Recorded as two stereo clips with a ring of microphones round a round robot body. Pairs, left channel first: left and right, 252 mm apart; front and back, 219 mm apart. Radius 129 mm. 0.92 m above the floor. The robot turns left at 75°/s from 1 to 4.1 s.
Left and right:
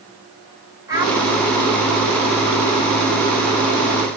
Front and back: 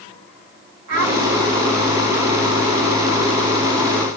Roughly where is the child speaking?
Behind.